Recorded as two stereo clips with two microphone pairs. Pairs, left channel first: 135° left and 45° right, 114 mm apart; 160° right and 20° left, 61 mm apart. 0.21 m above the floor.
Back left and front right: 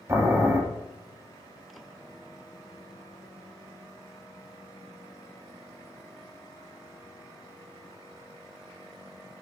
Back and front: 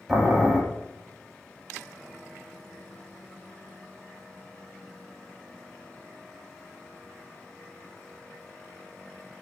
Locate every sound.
0.1 s boiling: 60° right, 0.7 m